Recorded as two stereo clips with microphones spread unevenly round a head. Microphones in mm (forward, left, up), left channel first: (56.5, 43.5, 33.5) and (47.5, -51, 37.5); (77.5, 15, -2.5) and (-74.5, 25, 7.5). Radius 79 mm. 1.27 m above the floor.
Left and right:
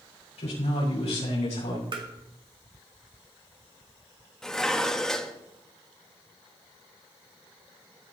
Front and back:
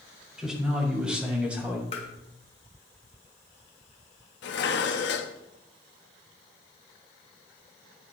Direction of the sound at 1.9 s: 60° right.